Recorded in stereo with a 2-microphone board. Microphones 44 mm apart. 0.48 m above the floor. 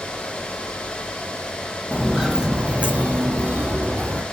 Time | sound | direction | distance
1.9 | footsteps | centre (ahead or behind) | 0.7 m